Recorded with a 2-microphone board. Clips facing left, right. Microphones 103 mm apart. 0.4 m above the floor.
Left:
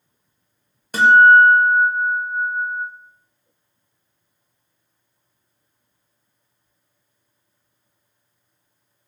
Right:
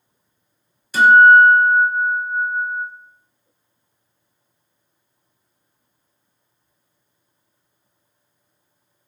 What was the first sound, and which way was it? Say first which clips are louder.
A guitar: right 1 dB; 55° left (ahead or behind).